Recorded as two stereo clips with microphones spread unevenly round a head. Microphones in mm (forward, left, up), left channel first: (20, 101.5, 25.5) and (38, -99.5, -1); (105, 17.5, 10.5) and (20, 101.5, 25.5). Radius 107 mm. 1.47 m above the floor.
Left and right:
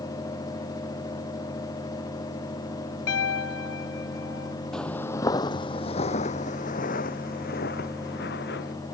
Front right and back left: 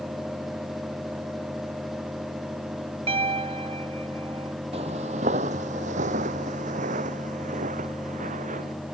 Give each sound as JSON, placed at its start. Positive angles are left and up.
{"t": 3.1, "sound": "a piano", "azimuth_deg": 115}
{"t": 4.7, "sound": "footsteps", "azimuth_deg": 180}